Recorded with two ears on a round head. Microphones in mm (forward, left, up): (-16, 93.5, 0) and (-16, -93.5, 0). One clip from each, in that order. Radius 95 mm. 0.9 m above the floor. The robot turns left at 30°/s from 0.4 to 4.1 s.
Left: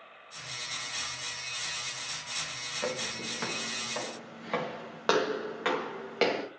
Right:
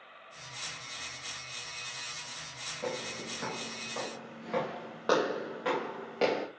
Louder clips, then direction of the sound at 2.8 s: Left 2 dB; 60° left (ahead or behind).